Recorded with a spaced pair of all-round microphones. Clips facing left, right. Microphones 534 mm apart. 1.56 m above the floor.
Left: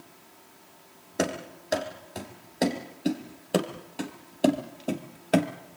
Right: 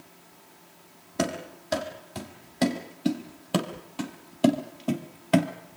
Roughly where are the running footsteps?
Right.